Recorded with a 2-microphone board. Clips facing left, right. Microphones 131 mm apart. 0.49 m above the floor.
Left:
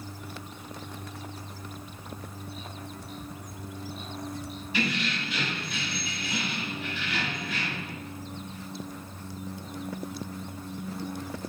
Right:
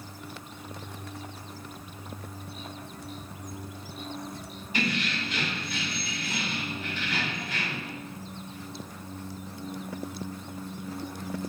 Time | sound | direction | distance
4.7 | keys jangling | 45° right (ahead or behind) | 1.9 m